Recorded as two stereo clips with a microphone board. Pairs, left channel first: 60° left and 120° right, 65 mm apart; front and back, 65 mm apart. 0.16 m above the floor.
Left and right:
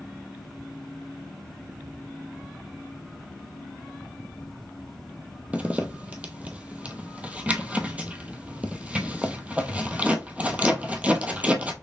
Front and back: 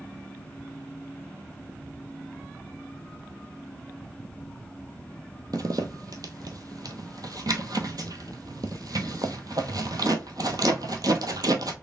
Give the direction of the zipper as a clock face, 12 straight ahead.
6 o'clock.